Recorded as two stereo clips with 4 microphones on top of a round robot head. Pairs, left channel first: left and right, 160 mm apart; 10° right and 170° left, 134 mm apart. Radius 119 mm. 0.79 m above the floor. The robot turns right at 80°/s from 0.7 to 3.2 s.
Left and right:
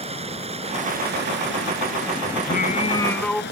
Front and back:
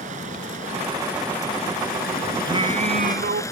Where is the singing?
115° left; by 3.4 s 175° left.